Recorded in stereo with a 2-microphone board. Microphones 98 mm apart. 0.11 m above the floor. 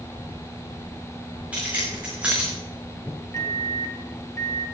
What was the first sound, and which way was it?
Keys jangling, 15° right (ahead or behind).